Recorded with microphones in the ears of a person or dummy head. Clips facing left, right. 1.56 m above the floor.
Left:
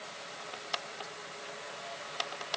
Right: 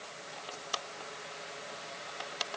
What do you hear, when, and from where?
Only background noise.